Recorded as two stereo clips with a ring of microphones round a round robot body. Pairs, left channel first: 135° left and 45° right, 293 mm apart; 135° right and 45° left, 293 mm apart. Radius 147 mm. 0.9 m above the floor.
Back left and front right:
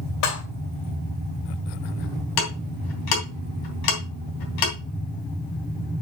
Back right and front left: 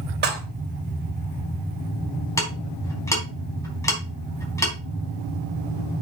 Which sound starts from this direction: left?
Dishes clattering, at 0.2 s.